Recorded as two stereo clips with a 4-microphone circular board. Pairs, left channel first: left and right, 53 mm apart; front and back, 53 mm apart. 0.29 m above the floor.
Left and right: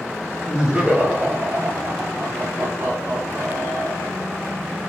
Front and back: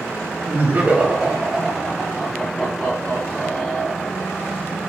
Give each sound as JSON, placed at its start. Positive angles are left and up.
{"t": 0.5, "sound": "laughter", "azimuth_deg": -160, "distance_m": 1.2}